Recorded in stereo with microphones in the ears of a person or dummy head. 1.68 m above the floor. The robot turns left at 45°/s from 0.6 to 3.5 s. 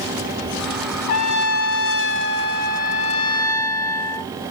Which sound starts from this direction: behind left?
A trumpet, at 1.1 s.